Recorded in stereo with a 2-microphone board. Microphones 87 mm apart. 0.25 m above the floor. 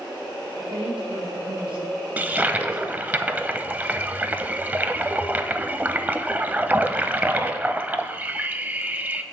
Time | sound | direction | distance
0.6 | a woman speaking | 75° right (ahead or behind) | 4 m
2.2 | a toilet flushing | 20° right (ahead or behind) | 0.6 m